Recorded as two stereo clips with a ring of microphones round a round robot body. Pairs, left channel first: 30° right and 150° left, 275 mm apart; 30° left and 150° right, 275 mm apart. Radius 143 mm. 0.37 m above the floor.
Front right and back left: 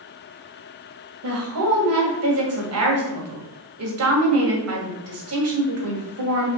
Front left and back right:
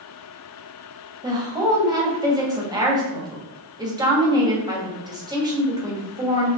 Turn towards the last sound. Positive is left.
turn(degrees=135)